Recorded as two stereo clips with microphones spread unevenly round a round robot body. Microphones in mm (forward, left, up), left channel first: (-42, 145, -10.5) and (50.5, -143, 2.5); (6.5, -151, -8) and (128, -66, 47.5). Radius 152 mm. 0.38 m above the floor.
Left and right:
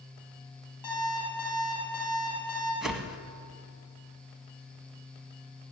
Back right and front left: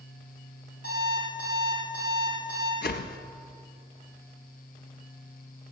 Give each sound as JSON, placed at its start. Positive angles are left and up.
{"t": 0.8, "sound": "an alarm clock", "azimuth_deg": 85, "distance_m": 5.0}
{"t": 2.8, "sound": "a whoosh", "azimuth_deg": -160, "distance_m": 0.7}